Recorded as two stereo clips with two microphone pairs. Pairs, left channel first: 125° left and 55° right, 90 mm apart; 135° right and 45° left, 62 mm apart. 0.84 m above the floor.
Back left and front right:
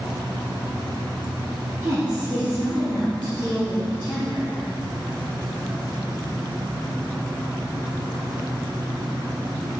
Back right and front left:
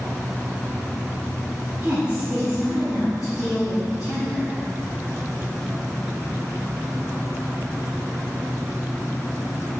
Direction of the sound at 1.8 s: 15° right.